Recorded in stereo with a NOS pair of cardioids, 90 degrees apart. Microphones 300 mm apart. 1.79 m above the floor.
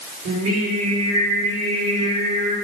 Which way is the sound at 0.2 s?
55° right.